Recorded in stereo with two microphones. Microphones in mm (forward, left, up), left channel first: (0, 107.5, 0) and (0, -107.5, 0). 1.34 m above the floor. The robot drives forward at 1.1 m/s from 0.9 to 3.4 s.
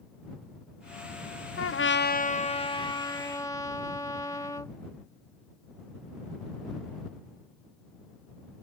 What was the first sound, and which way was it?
A trumpet, 80° left.